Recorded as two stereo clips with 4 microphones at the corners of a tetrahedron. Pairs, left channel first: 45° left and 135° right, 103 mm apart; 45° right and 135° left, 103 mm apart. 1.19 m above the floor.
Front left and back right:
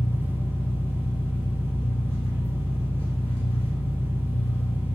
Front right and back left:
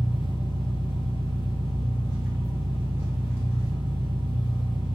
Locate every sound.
0.0 s an engine running: 70° left, 1.2 m